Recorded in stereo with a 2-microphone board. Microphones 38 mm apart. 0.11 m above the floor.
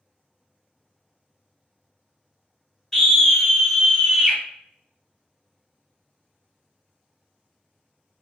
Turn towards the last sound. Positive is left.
turn(degrees=-10)  # may be behind; listen again after turning